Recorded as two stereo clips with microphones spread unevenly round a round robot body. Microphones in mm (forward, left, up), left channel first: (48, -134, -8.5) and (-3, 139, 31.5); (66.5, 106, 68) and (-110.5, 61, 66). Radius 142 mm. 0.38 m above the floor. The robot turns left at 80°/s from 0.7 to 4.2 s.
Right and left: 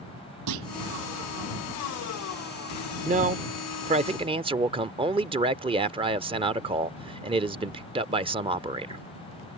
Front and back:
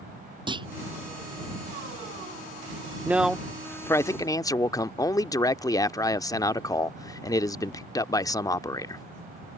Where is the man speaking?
135° left; by 9.0 s 40° left.